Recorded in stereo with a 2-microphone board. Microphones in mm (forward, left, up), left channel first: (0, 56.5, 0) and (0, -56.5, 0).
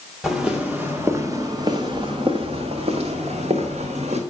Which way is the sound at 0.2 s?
5° right (ahead or behind).